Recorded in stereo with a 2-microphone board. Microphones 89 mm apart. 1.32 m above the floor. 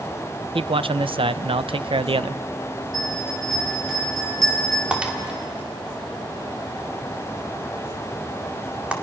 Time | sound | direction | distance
0.6 | a man speaking | 75° right (ahead or behind) | 0.5 m
2.9 | a bell | centre (ahead or behind) | 7 m
4.9 | breaking glass | 10° right (ahead or behind) | 2.5 m